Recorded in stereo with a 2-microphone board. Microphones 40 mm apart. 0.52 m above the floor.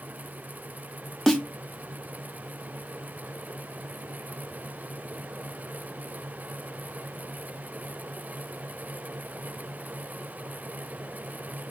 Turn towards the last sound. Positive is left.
turn(degrees=10)  # may be behind; listen again after turning